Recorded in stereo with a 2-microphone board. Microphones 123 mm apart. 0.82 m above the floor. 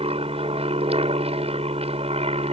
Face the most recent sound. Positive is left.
turn(degrees=-50)  # may be behind; listen again after turning